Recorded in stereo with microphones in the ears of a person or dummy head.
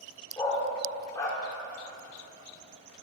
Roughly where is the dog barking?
Centre.